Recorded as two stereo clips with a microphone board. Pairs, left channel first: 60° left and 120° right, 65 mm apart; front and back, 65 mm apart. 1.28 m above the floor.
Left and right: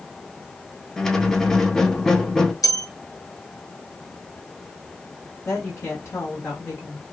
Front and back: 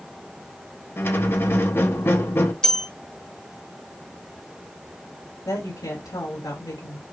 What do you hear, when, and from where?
1.0 s a squeak: 20° right, 0.8 m
2.6 s a bell: 80° left, 1.0 m
5.5 s a woman speaking: 20° left, 2.5 m